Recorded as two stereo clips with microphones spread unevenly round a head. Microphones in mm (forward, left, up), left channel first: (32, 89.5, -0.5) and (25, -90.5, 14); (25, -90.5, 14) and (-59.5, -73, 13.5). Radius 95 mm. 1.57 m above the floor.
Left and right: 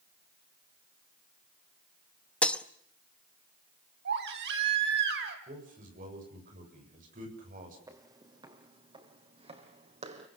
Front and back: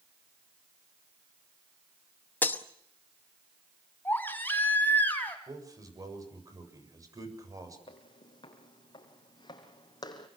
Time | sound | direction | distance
2.4 | breaking glass | 5° left | 0.9 m
4.0 | a baby crying | 80° right | 3.5 m
5.5 | a man speaking | 145° right | 7.5 m
7.9 | footsteps | 25° right | 3 m